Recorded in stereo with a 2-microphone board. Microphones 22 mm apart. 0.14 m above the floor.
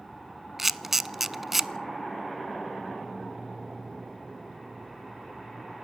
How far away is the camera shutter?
About 0.5 m.